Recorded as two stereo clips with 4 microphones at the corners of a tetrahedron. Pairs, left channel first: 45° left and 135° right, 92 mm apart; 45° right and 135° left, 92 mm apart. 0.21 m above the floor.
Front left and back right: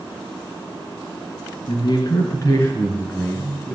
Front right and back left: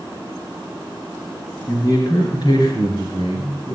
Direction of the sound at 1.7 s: 10° left.